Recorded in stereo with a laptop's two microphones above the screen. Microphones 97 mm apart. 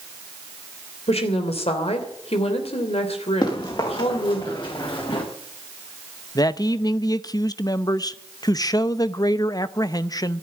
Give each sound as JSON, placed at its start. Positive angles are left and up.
{"t": 1.1, "sound": "a woman speaking", "side_deg": 75, "distance_m": 3.0}
{"t": 3.4, "sound": "running footsteps", "side_deg": 45, "distance_m": 6.0}
{"t": 6.3, "sound": "a man speaking", "side_deg": 35, "distance_m": 0.5}